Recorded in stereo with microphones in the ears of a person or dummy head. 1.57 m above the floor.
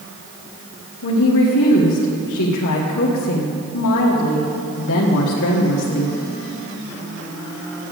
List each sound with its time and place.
1.0 s a woman speaking: 70° left (ahead or behind), 1.4 m